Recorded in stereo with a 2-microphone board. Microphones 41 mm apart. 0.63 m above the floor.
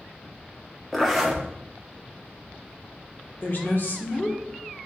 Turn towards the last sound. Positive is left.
turn(degrees=55)  # may be behind; listen again after turning